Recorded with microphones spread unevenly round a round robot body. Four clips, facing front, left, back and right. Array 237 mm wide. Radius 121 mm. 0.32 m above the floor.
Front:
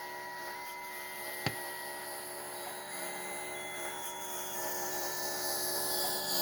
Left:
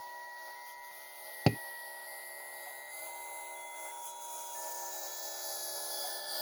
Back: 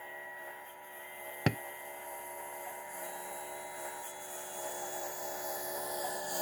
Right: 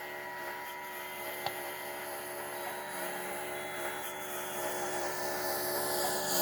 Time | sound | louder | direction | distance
0.0 | a lawn mower | right 5 dB, front 4 dB | 65° right | ?
1.5 | tapping | left 10 dB, back 7 dB | 115° left | ?